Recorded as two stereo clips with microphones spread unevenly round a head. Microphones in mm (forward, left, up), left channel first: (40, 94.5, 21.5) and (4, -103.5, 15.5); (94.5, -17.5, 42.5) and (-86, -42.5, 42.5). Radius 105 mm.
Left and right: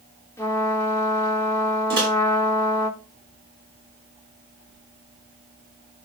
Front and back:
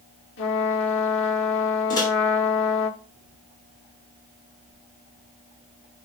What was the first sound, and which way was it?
A trumpet, 5° left.